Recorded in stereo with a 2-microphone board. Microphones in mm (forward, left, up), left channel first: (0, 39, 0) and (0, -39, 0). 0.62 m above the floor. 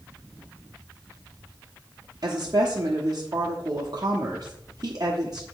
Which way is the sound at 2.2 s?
50° right (ahead or behind).